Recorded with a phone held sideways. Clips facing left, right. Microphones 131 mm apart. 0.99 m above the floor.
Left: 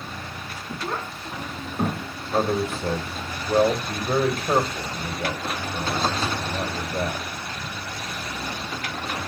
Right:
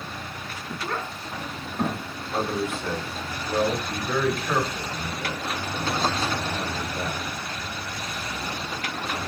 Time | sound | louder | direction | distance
0.8 | a child speaking | left 1 dB | 10° left (ahead or behind) | 1.7 m
2.3 | a man speaking | left 4 dB | 35° left (ahead or behind) | 1.6 m